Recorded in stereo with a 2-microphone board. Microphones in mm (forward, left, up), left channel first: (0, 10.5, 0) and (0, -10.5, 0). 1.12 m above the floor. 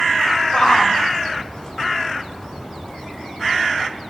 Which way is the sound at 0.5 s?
40° left (ahead or behind).